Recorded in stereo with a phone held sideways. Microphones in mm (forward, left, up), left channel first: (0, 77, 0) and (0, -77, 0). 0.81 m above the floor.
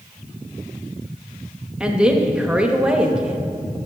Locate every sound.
1.8 s a woman speaking: 5° right (ahead or behind), 0.8 m